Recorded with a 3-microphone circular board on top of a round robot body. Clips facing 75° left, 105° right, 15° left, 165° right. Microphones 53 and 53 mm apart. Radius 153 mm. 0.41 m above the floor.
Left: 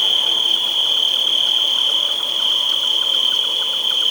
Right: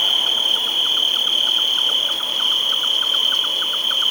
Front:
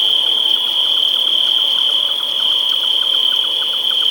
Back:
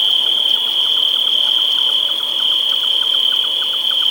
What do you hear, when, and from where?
0.0 s an insect: 85° right